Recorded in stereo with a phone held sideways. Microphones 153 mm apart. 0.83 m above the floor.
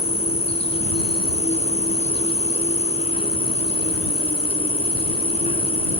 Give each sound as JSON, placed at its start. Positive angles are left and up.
{"t": 0.0, "sound": "an insect", "side_deg": 40}